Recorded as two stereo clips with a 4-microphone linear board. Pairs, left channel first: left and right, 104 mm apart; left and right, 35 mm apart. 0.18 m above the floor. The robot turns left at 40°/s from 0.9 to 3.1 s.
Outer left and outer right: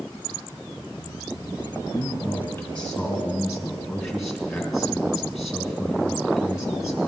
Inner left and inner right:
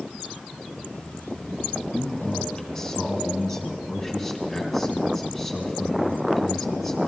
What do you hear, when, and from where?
1.9 s a man speaking: 45° left, 2.5 m; by 7.1 s straight ahead, 2.5 m